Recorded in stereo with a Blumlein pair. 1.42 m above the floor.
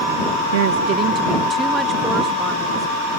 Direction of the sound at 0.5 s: 55° right.